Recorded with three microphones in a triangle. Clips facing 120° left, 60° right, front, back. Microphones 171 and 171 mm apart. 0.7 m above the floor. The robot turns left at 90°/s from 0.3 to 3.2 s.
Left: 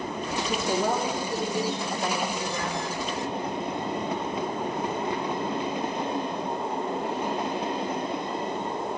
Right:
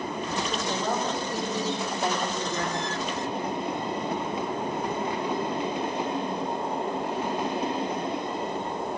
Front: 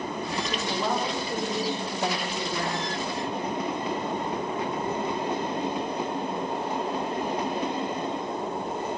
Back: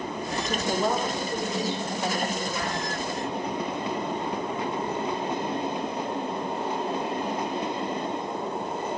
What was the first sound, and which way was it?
A woman speaking, 145° left.